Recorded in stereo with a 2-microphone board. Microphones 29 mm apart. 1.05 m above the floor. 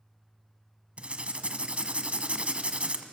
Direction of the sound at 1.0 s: 50° right (ahead or behind).